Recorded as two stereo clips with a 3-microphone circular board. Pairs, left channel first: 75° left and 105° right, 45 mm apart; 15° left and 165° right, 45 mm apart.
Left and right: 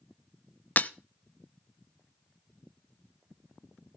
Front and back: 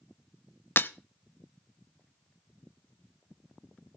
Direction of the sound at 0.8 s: 35° left.